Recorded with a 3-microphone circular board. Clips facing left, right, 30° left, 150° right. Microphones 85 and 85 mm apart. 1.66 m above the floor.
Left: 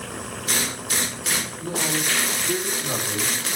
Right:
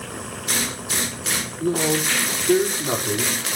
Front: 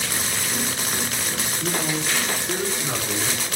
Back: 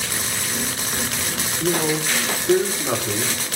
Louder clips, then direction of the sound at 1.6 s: Right 8 dB, back 6 dB; 150° right.